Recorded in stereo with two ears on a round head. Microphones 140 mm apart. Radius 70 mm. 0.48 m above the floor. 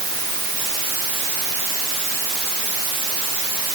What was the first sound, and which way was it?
Only background noise.